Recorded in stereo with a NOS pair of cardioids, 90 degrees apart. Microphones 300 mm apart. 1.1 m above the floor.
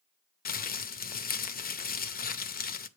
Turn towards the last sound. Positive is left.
turn(degrees=30)